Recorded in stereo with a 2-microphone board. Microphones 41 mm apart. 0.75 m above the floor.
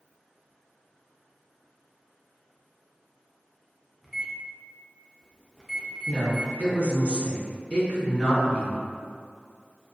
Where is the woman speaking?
30° left (ahead or behind), 1.1 m.